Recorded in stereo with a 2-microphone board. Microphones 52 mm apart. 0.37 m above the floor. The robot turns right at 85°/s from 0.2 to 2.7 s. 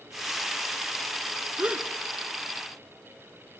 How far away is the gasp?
About 0.6 m.